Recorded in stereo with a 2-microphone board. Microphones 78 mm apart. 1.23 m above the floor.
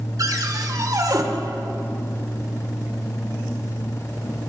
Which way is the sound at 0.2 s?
55° right (ahead or behind).